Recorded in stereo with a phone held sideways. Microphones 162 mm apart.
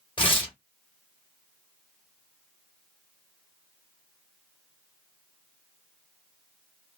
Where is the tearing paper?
30° left (ahead or behind), 1.1 m.